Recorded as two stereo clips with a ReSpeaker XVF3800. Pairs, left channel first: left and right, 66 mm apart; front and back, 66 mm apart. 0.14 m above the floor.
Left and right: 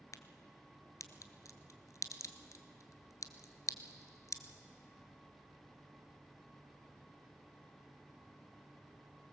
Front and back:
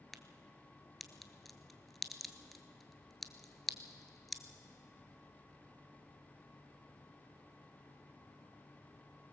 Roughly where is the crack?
Left.